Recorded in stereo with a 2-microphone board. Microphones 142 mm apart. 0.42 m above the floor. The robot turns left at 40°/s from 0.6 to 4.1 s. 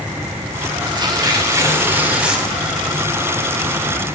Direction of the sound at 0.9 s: 110° right.